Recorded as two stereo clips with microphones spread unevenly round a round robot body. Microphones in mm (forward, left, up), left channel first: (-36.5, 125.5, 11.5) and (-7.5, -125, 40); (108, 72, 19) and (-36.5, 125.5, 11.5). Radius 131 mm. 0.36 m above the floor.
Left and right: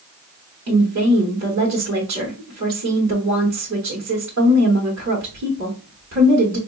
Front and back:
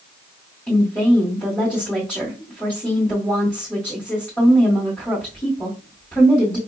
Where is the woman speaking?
105° right, 1.1 m.